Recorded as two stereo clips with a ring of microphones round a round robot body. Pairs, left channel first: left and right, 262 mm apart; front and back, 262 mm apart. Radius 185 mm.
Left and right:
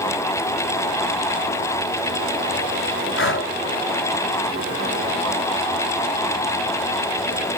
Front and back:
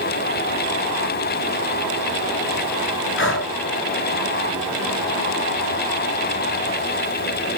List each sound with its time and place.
3.2 s breathing: 45° left, 3.5 m